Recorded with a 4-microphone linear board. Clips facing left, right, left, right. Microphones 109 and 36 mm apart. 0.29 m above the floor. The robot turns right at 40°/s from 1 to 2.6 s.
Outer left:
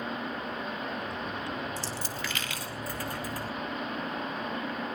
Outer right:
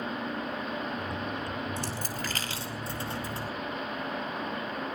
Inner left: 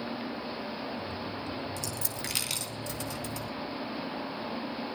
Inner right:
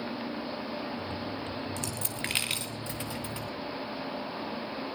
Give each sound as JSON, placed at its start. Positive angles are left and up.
{"t": 1.8, "sound": "a dropped coin", "side_deg": -60, "distance_m": 2.0}